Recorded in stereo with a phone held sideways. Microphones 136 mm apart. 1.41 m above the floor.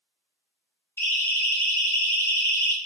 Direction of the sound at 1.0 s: 15° left (ahead or behind).